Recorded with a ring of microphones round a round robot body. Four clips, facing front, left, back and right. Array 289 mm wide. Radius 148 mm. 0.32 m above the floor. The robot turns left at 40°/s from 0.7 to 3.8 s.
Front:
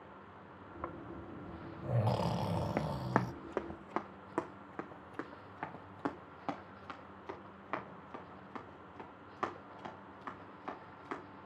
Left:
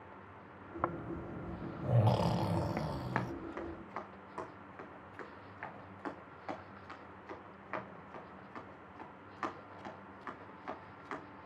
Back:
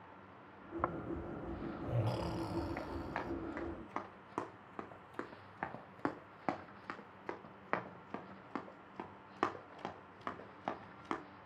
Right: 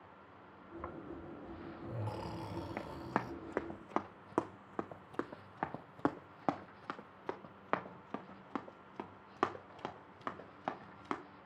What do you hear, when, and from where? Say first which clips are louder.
0.8 s snoring: left 9 dB, back 5 dB; 115° left, 0.5 m; by 3.3 s 15° left, 0.5 m
2.8 s running footsteps: left 1 dB, front 7 dB; 5° left, 1.3 m; by 11.2 s 125° right, 4 m